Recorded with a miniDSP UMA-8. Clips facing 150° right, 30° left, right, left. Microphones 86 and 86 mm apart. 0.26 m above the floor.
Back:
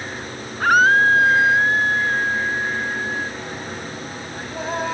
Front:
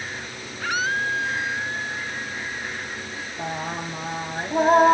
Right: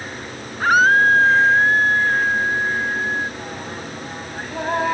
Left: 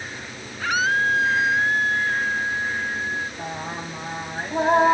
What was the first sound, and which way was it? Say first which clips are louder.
A scream: back 11 dB, right 8 dB; 125° right.